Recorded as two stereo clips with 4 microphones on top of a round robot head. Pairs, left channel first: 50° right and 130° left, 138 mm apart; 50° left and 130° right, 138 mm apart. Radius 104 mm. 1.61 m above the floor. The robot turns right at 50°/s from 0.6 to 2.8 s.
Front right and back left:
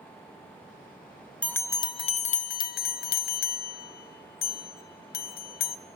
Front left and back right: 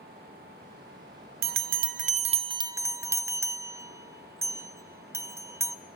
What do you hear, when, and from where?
1.4 s a bell: 130° right, 1.1 m; by 5.8 s 60° right, 1.1 m